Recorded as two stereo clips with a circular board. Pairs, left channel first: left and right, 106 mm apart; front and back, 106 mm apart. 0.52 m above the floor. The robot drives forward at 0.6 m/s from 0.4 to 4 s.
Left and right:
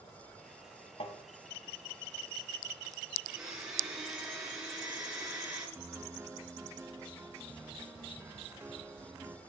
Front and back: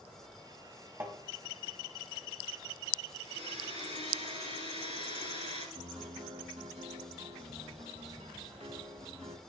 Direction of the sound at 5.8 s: 160° right.